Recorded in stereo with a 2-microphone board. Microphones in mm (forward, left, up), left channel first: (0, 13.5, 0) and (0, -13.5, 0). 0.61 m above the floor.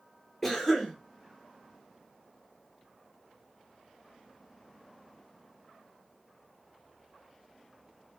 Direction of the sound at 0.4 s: 10° left (ahead or behind).